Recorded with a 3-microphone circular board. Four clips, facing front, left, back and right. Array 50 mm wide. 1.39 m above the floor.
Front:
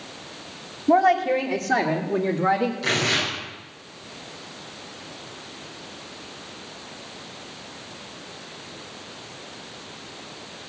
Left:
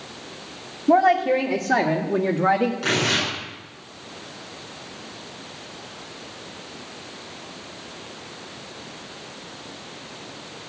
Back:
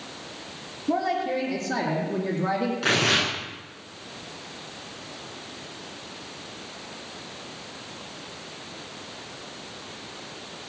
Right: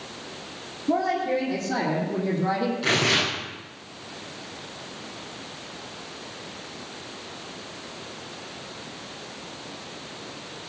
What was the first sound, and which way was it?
A woman speaking, 55° left.